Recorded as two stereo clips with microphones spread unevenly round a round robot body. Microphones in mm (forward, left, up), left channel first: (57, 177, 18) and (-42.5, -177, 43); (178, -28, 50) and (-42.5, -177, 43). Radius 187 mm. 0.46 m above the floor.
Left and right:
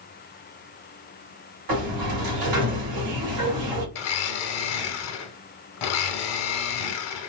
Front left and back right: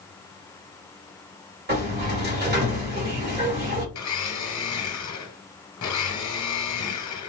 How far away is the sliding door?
About 1.9 m.